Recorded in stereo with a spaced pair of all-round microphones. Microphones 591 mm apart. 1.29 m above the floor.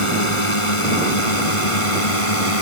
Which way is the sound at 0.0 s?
55° left (ahead or behind).